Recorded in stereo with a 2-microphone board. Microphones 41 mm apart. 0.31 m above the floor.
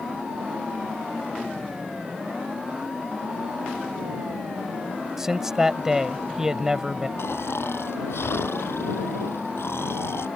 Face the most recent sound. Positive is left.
turn(degrees=85)